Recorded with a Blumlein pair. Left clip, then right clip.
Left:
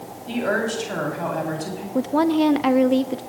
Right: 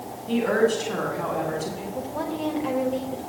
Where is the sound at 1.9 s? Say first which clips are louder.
Left 12 dB; 55° left, 0.9 m.